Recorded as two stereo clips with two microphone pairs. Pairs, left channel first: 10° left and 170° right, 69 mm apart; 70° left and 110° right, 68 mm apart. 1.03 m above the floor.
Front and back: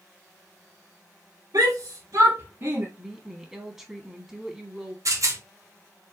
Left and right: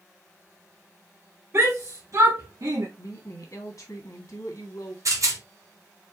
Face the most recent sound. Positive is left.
turn(degrees=-140)